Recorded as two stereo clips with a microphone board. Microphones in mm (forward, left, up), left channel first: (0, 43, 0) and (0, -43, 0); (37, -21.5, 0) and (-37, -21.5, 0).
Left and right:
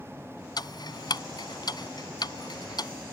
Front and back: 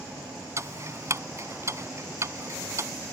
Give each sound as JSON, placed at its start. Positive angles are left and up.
{"t": 0.6, "sound": "ticking", "azimuth_deg": 130}